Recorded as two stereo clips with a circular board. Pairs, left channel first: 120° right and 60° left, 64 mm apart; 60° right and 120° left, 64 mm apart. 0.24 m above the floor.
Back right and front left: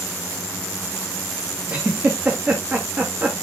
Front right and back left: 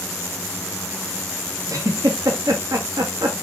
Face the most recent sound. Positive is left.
turn(degrees=130)